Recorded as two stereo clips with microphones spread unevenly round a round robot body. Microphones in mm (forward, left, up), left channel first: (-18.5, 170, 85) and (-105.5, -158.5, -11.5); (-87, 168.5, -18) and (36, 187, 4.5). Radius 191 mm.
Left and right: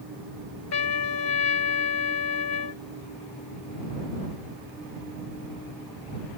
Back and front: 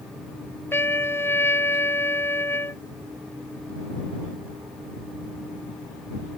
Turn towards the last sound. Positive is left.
turn(degrees=115)